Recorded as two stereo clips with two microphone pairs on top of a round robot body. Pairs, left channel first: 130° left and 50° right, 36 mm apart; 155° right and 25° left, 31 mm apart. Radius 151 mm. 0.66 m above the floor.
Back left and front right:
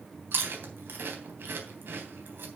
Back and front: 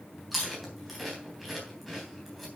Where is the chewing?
60° right, 3 m.